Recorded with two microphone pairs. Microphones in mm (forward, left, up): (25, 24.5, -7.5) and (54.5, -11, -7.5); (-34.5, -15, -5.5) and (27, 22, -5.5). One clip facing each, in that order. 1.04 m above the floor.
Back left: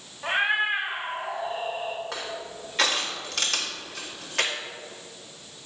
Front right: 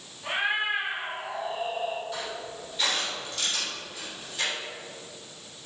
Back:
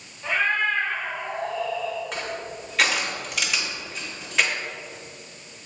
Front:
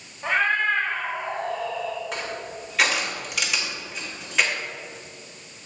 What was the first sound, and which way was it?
A cat meowing, 75° left.